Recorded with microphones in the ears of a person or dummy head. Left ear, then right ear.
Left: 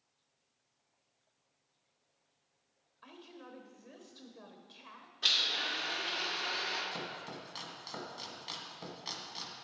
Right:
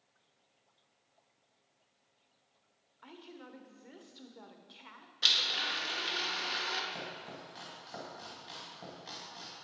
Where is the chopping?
25° left (ahead or behind), 1.7 m.